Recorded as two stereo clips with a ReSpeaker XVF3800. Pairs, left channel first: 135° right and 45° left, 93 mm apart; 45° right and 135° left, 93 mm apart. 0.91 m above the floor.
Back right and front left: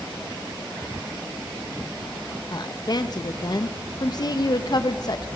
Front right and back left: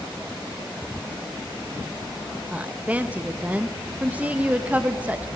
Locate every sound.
2.5 s a woman speaking: 155° right, 0.8 m